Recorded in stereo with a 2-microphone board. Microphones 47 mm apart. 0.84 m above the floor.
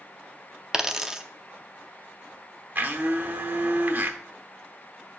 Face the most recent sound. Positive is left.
turn(degrees=-50)  # may be behind; listen again after turning